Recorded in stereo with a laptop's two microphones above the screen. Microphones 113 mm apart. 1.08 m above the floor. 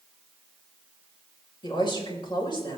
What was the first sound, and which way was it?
A woman speaking, 40° left (ahead or behind).